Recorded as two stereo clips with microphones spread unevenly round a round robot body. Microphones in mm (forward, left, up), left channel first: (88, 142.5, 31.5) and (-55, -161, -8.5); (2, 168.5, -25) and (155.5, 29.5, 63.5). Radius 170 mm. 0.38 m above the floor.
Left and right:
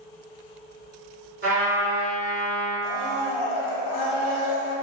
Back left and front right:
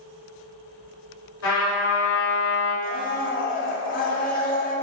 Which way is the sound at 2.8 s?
90° left.